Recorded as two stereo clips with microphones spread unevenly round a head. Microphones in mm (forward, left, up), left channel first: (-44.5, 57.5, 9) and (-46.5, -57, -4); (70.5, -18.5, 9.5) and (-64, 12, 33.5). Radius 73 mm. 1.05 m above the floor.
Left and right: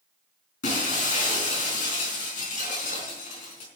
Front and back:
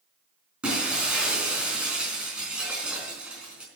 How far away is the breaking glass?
About 4.5 m.